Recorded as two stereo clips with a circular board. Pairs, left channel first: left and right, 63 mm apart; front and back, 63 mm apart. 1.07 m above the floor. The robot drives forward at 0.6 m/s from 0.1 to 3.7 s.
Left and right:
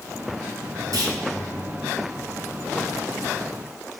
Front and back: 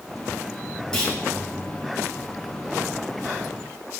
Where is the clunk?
80° right, 5 m.